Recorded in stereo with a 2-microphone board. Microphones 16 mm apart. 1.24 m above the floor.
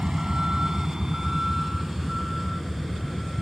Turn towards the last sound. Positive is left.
turn(degrees=-5)  # may be behind; listen again after turning